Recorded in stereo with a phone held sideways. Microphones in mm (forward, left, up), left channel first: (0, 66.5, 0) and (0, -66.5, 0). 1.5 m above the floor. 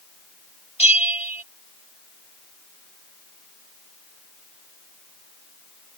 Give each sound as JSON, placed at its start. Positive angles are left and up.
{"t": 0.8, "sound": "a bell", "side_deg": 55}